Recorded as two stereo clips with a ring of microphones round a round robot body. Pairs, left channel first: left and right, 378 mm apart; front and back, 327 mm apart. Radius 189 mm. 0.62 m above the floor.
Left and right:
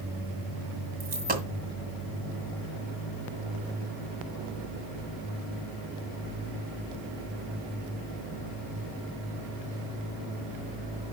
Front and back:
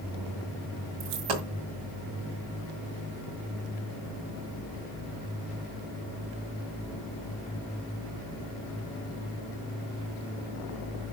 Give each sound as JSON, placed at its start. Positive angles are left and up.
{"t": 1.0, "sound": "a dropped coin", "azimuth_deg": -160, "distance_m": 1.9}